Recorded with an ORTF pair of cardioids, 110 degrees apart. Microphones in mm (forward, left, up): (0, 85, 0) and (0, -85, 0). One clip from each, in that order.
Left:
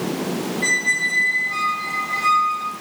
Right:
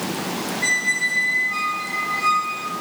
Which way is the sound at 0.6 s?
10° left.